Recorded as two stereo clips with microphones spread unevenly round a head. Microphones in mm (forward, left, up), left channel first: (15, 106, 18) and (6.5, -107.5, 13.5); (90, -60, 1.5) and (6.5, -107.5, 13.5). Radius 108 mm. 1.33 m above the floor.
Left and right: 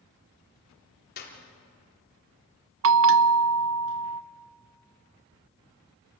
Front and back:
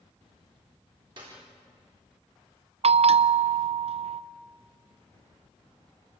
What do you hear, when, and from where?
1.2 s a clap: 140° left, 3.5 m
2.8 s a bell: 130° right, 0.7 m